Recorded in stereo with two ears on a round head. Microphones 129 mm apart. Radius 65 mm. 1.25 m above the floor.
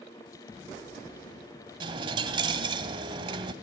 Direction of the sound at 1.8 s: 35° right (ahead or behind).